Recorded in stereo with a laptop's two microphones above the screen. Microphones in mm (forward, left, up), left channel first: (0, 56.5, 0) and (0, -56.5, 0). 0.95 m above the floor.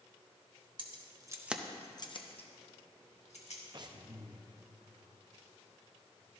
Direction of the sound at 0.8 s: 50° right (ahead or behind).